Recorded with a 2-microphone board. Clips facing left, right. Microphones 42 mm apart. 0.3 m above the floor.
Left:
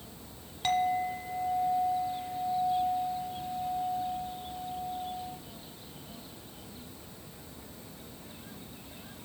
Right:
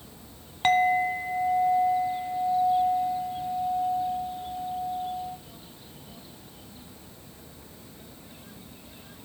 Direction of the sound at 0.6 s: 45° right (ahead or behind).